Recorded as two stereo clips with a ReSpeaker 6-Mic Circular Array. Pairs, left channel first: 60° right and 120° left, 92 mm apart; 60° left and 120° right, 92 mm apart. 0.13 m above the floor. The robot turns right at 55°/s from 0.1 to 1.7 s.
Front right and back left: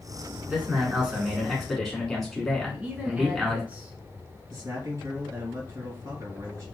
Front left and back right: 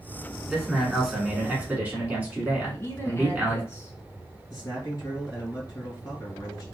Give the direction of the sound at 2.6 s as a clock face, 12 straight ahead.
10 o'clock.